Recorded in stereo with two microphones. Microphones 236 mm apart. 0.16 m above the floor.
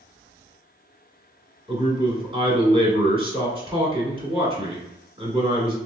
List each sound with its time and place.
1.7 s a man speaking: 25° right (ahead or behind), 1.3 m